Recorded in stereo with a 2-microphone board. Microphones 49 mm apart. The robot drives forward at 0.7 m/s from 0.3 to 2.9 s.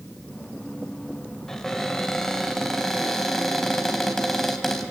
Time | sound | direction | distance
1.5 | a cupboard door | 10° left (ahead or behind) | 2.0 m